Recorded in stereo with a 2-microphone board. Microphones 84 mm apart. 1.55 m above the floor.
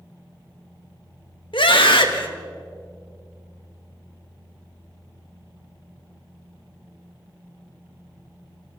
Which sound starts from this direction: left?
A scream, at 1.5 s.